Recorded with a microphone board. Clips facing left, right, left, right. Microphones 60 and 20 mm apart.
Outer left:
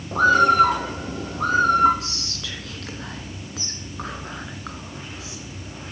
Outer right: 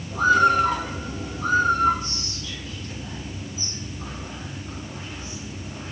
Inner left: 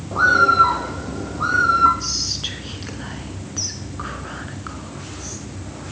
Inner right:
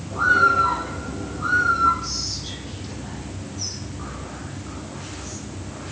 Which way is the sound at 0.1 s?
55° left (ahead or behind).